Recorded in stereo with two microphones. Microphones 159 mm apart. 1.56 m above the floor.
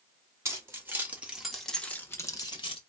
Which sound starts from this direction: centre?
Keys jangling, at 0.5 s.